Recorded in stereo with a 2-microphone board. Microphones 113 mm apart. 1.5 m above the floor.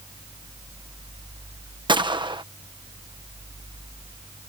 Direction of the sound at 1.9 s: 40° right (ahead or behind).